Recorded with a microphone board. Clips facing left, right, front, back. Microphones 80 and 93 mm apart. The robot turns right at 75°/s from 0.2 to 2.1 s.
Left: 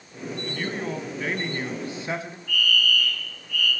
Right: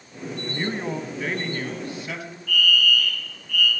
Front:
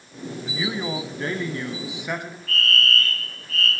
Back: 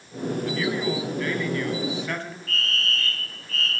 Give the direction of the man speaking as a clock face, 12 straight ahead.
2 o'clock.